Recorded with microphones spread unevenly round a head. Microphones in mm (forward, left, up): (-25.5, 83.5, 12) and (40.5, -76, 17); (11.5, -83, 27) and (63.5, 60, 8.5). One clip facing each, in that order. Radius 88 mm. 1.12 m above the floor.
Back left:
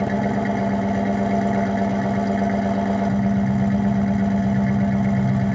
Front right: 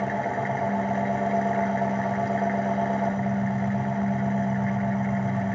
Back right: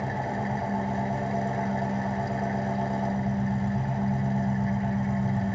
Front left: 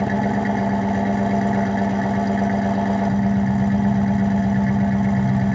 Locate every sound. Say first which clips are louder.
0.0 s an engine running: back left 6 dB, front left 10 dB; 70° left, 1.4 m